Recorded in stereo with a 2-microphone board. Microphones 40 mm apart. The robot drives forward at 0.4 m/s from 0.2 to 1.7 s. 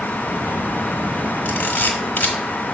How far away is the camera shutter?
About 1.5 m.